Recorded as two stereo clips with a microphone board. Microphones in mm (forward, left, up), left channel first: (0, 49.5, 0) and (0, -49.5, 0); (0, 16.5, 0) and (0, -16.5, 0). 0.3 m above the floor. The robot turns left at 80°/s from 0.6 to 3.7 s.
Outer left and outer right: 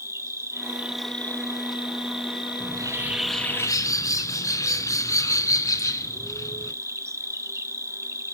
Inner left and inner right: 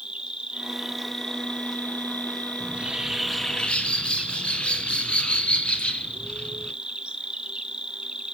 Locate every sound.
0.0 s an insect: 145° right, 1.1 m; by 8.3 s 35° right, 1.1 m
2.6 s a bird: 125° right, 1.1 m; by 6.7 s 145° left, 1.1 m